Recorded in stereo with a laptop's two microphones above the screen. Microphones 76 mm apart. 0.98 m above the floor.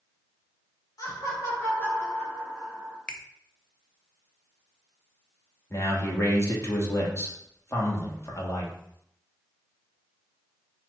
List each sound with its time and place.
1.0 s laughter: 45° left (ahead or behind), 1.9 m; by 3.0 s centre (ahead or behind), 1.8 m
3.1 s a finger snap: 15° left (ahead or behind), 0.5 m
5.7 s a man speaking: 35° left (ahead or behind), 1.5 m